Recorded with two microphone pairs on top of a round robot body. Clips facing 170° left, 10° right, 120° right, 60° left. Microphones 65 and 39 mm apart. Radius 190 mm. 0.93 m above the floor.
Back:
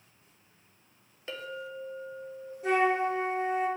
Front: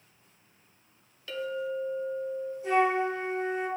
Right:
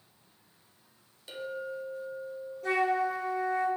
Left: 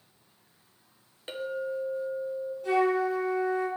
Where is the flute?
145° right, 3.5 m.